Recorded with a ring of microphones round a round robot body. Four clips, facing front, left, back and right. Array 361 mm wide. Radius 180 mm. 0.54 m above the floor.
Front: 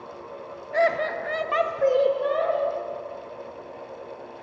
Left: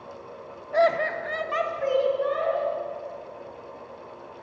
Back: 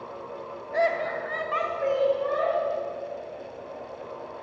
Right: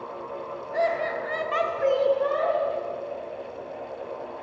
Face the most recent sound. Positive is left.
turn(degrees=-30)